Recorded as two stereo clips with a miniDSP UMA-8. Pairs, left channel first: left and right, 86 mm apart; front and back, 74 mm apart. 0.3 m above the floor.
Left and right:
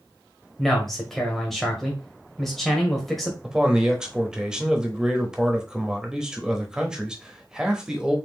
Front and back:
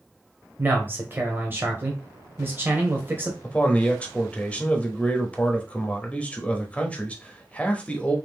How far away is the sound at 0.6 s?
About 1.3 m.